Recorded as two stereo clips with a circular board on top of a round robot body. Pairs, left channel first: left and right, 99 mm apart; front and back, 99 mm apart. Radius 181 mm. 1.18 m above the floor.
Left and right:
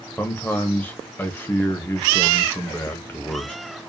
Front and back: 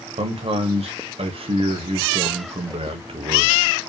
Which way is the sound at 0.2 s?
160° left.